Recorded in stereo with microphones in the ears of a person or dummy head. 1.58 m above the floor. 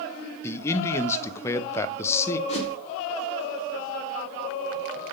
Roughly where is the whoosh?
Left.